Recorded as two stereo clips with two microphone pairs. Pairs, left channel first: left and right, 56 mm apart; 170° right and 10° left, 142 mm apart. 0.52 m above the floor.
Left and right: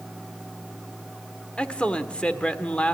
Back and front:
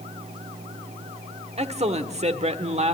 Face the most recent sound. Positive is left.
turn(degrees=25)